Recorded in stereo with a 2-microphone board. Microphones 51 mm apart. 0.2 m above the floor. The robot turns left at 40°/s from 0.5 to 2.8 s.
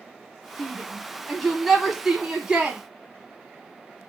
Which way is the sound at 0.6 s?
15° left (ahead or behind).